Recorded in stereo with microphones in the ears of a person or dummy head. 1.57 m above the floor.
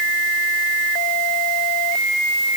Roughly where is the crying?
I don't hear crying.